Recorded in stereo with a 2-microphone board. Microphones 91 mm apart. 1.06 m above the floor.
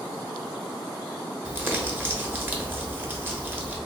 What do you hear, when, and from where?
1.4 s crumpling: 20° right (ahead or behind), 0.8 m